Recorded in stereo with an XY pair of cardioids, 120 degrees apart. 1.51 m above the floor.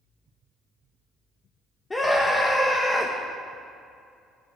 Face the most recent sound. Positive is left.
turn(degrees=15)